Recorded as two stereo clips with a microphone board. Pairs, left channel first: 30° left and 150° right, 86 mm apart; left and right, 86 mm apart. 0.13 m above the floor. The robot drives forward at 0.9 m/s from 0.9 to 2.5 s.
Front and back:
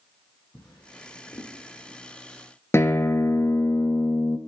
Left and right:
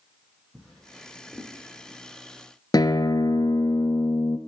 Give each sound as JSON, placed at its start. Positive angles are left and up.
{"t": 0.5, "sound": "a drawer", "azimuth_deg": 5, "distance_m": 3.5}
{"t": 2.7, "sound": "a guitar", "azimuth_deg": 80, "distance_m": 0.8}